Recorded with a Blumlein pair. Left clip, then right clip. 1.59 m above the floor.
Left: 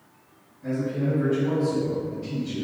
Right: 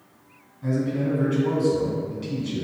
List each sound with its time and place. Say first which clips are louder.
0.6 s a man speaking: right 2 dB; 45° right, 1.2 m